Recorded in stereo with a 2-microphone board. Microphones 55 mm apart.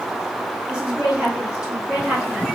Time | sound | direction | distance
0.7 | a woman speaking | 15° right (ahead or behind) | 1.7 m